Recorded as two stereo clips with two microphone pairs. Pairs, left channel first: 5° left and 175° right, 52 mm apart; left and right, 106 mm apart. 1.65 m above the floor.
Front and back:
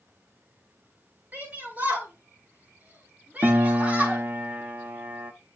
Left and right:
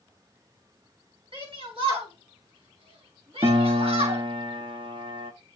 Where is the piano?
125° right, 0.9 m.